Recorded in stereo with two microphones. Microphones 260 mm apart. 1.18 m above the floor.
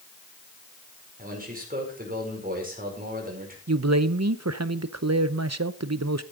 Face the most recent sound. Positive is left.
turn(degrees=-80)